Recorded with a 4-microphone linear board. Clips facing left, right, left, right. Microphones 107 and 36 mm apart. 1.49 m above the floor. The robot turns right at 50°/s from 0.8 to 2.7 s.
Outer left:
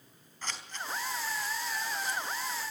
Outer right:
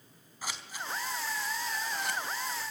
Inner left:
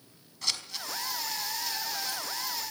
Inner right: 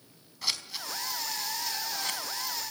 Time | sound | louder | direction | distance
0.4 | scissors | even, even | 10° right (ahead or behind) | 4 m